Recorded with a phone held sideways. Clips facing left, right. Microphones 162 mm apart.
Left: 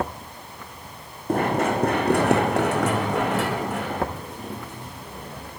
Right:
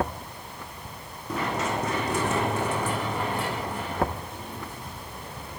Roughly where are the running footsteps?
Left.